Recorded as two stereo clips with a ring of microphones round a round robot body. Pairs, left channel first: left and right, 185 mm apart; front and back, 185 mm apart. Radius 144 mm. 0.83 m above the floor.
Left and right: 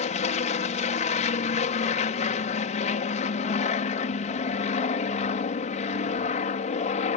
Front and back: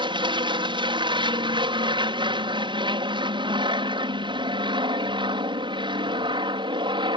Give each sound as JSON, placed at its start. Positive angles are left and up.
{"t": 0.0, "sound": "an aircraft", "azimuth_deg": 125}